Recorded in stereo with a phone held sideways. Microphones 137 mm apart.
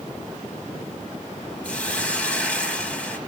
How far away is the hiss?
About 1.3 m.